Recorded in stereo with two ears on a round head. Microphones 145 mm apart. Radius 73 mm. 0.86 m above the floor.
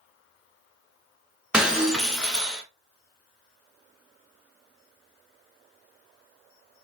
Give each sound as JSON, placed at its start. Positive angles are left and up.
{"t": 1.5, "sound": "breaking glass", "side_deg": -5, "distance_m": 1.2}